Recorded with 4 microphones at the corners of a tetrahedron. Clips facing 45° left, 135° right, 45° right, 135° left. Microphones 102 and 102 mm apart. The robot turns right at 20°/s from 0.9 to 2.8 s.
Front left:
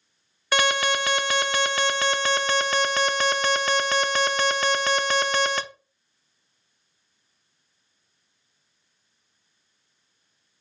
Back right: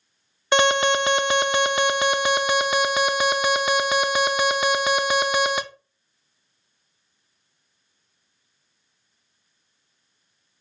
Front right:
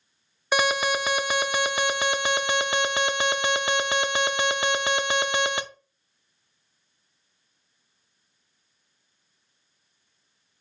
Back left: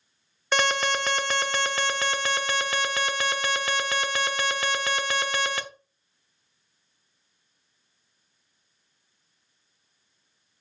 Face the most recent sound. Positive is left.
turn(degrees=-75)